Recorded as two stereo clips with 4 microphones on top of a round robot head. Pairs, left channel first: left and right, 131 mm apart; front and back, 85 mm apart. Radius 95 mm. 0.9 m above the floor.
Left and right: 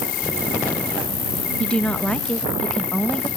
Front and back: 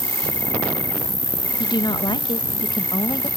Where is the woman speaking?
10° left.